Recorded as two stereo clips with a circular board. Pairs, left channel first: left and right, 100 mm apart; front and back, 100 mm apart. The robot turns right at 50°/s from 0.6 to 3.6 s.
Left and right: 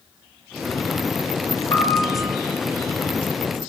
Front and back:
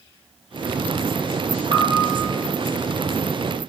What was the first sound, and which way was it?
A piano, 135° left.